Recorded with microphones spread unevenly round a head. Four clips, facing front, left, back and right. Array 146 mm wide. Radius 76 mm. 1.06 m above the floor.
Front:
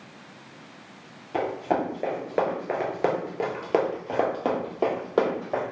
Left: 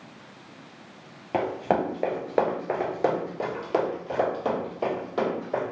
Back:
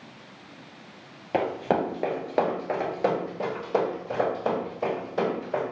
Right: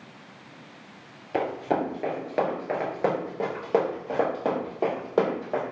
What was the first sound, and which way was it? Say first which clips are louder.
Running footsteps: left 1 dB, back 1 dB; 135° left.